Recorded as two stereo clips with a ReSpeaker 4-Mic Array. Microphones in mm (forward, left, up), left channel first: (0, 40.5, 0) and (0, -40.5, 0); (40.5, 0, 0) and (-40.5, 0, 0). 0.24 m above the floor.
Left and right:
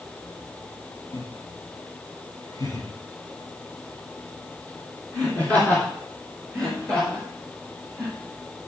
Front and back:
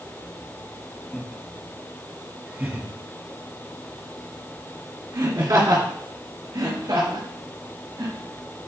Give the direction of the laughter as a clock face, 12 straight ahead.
9 o'clock.